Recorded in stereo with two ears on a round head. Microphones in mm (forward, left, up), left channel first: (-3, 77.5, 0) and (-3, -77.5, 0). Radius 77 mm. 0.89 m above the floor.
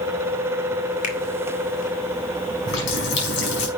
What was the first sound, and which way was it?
A finger snap, 50° left (ahead or behind).